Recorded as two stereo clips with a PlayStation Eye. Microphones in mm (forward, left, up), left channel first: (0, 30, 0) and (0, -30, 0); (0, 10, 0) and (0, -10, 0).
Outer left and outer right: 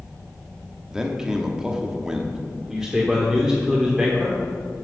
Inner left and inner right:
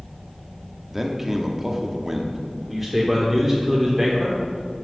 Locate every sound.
0.9 s a man speaking: 10° right (ahead or behind), 0.9 m
2.7 s a man speaking: 10° right (ahead or behind), 1.2 m